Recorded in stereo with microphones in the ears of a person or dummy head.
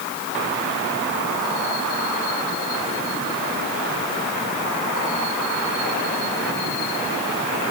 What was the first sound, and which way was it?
Only background noise.